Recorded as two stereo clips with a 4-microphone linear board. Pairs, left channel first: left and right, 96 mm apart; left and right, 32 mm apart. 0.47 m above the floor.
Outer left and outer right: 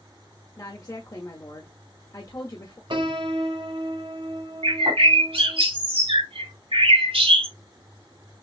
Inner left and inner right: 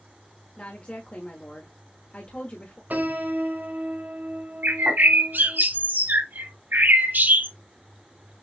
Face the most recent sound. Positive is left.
turn(degrees=-75)  # may be behind; listen again after turning